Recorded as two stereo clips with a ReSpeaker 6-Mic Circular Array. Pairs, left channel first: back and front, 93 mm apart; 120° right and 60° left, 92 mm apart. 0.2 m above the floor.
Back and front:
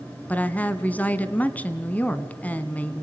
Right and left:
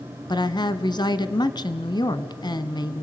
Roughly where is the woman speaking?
Right.